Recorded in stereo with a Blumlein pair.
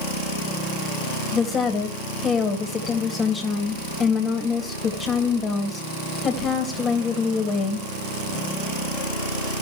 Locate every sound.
1.3 s a woman speaking: 20° left, 2.0 m